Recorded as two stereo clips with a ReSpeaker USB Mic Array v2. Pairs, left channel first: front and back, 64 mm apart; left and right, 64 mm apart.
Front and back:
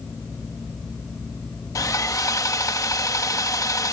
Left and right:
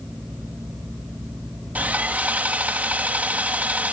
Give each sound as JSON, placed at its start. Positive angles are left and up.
{"t": 1.8, "sound": "sawing", "azimuth_deg": -25}